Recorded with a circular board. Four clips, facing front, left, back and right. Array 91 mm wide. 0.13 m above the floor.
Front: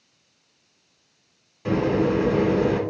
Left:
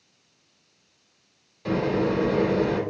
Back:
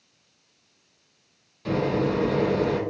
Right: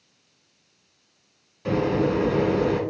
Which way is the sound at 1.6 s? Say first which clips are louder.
Right 1 dB, front 3 dB; 20° right.